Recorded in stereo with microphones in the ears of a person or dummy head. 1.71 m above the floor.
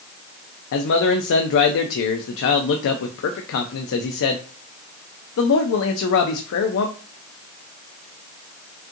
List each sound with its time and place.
0.7 s a man speaking: 65° left (ahead or behind), 0.5 m